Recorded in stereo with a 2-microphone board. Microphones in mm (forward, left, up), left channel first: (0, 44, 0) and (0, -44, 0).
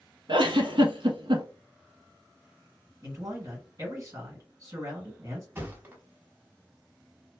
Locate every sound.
0.3 s a giggle: 65° right (ahead or behind), 0.6 m
3.0 s a man speaking: 40° right (ahead or behind), 1.9 m
5.5 s a thud: 25° right (ahead or behind), 0.8 m